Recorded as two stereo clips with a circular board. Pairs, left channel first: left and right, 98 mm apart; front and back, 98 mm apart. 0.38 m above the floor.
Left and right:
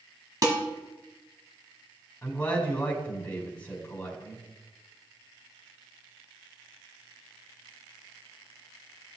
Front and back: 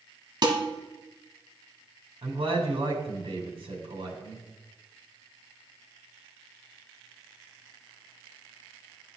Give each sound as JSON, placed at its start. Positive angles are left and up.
{"t": 0.4, "sound": "dishes clattering", "azimuth_deg": -140, "distance_m": 1.6}
{"t": 2.2, "sound": "a man speaking", "azimuth_deg": 165, "distance_m": 2.5}